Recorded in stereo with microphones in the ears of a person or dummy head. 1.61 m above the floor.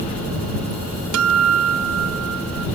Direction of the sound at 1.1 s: 80° right.